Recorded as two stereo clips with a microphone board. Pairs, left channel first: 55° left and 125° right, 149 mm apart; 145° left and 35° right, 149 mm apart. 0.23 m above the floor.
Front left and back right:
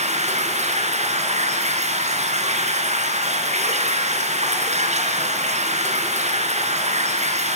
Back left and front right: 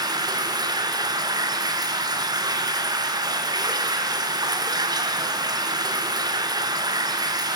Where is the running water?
95° right, 2.5 m.